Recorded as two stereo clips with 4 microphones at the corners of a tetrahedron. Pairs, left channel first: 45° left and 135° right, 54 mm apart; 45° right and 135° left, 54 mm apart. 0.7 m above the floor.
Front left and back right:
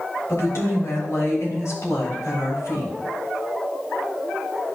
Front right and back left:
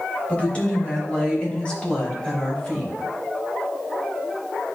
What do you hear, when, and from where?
0.3 s a woman speaking: 20° left, 3 m; by 2.9 s 25° left, 4.5 m